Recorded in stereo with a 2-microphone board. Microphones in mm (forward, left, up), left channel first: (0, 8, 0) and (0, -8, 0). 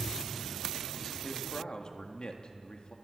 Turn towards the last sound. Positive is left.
turn(degrees=70)  # may be behind; listen again after turning